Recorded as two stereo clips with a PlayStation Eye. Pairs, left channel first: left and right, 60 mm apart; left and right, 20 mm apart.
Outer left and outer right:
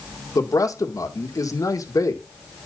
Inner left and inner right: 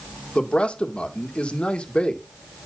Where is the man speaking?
75° left (ahead or behind), 1.9 m.